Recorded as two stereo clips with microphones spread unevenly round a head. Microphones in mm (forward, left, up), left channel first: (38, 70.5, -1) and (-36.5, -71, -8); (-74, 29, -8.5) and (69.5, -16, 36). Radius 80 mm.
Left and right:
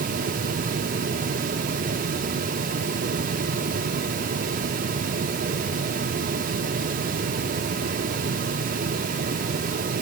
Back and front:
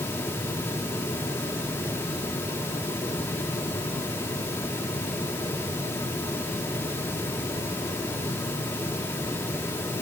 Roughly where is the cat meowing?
No cat meowing in this recording.